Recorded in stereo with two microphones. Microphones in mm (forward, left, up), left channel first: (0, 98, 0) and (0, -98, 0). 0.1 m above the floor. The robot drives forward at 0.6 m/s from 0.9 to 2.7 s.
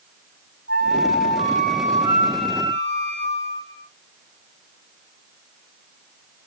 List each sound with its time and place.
0.7 s a flute: 75° left (ahead or behind), 4.5 m; by 3.8 s 70° left (ahead or behind), 4.5 m